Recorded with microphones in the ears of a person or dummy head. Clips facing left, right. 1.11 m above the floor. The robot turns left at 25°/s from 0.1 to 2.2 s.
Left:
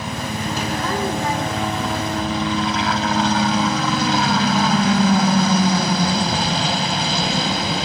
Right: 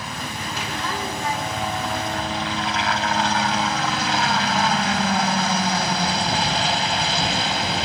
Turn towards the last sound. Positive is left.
turn(degrees=110)